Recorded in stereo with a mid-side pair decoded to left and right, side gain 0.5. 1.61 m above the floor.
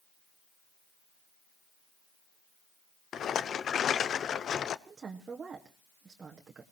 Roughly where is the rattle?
Ahead left.